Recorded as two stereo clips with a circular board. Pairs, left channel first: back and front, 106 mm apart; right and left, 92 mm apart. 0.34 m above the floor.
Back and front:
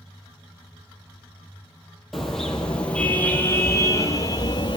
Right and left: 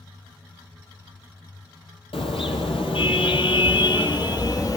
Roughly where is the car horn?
Right.